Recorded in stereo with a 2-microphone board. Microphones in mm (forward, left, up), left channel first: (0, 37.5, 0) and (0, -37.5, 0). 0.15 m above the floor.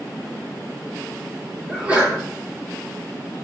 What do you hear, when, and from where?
1.7 s a sneeze: 15° right (ahead or behind), 2.5 m